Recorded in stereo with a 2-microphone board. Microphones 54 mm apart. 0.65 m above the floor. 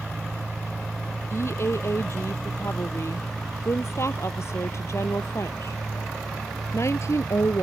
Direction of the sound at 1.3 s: 55° left (ahead or behind).